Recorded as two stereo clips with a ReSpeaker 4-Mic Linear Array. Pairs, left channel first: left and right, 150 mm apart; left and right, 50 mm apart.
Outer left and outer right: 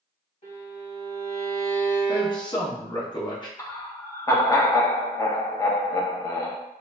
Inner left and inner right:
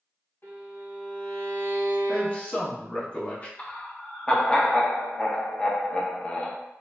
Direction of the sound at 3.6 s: 20° left (ahead or behind).